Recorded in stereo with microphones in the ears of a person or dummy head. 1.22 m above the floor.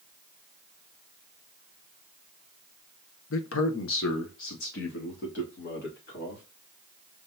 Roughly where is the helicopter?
No helicopter in this recording.